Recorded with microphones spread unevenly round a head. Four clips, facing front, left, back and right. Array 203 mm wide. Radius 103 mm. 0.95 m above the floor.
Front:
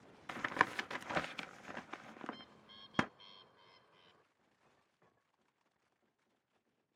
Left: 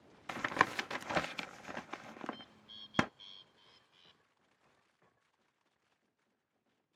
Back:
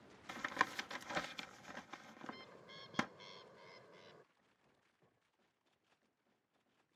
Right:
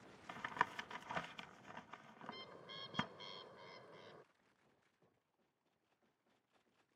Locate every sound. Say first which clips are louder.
0.3 s tapping: left 8 dB, front 4 dB; 70° left
2.2 s a bird: left 7 dB, front 3 dB; 120° right